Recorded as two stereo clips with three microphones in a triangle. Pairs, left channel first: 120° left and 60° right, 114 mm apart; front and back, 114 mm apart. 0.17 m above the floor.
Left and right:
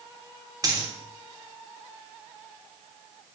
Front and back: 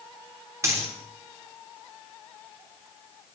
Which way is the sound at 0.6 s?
115° right.